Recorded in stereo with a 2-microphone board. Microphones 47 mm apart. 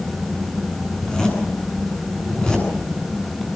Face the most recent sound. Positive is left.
turn(degrees=15)  # may be behind; listen again after turning